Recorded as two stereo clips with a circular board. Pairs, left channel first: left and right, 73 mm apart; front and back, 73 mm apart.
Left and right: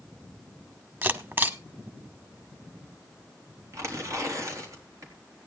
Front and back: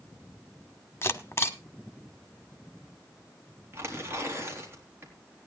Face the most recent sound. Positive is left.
turn(degrees=-130)